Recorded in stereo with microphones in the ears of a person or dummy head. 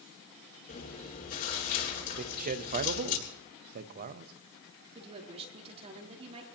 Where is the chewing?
45° left (ahead or behind), 9 m.